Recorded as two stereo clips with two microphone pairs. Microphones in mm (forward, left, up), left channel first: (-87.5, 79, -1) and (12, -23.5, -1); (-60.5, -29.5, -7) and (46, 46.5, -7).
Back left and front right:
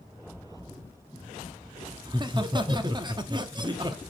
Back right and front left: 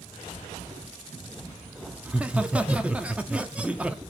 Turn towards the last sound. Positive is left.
turn(degrees=-35)